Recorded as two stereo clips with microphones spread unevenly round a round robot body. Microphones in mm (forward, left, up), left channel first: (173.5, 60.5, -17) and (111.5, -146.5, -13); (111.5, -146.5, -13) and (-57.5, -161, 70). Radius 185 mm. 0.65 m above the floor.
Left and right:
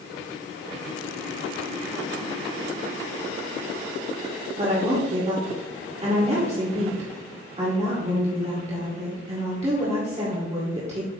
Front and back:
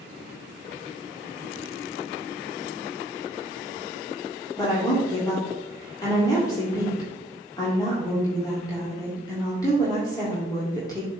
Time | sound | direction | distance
4.6 | a woman speaking | 50° right | 2 m